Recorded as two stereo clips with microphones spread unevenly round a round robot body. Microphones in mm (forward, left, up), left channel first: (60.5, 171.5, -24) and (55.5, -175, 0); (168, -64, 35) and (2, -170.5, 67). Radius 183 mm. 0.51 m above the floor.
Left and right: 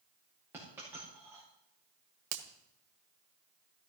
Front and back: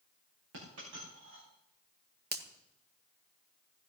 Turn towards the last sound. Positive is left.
turn(degrees=-105)